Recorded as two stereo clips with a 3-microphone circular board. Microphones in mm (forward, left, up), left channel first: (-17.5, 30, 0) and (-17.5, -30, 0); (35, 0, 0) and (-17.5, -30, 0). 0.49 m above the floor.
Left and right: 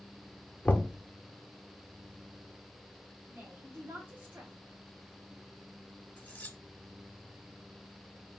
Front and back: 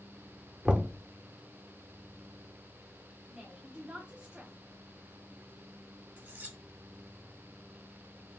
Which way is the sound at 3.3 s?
95° right.